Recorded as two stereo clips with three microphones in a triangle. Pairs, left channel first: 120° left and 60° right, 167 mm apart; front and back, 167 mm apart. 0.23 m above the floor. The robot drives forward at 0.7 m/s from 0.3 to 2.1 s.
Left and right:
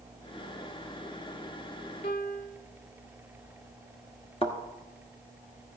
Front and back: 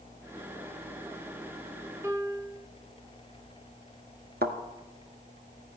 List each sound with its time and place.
2.0 s a piano: 110° left, 0.7 m
4.4 s a thud: 170° left, 1.3 m